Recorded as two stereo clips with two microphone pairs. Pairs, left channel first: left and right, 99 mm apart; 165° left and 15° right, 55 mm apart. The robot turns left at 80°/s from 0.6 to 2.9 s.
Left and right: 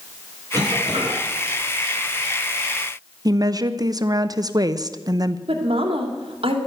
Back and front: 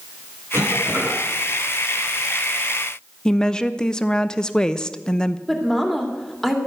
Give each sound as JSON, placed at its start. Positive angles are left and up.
{"t": 0.5, "sound": "a cough", "azimuth_deg": -40, "distance_m": 8.5}
{"t": 3.2, "sound": "a woman speaking", "azimuth_deg": -125, "distance_m": 0.7}
{"t": 5.5, "sound": "a woman speaking", "azimuth_deg": -110, "distance_m": 2.5}